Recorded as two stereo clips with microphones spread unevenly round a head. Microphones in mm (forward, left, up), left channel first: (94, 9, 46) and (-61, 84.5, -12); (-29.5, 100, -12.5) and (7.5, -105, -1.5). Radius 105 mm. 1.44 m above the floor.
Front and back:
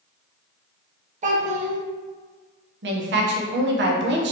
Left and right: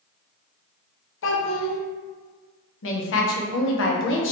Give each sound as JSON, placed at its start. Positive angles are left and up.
{"t": 1.2, "sound": "a child speaking", "azimuth_deg": 100, "distance_m": 0.8}
{"t": 2.8, "sound": "a woman speaking", "azimuth_deg": 130, "distance_m": 0.8}